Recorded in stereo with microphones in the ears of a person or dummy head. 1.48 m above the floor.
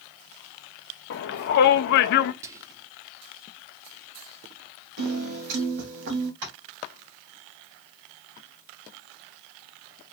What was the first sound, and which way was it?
A shout, 55° left (ahead or behind).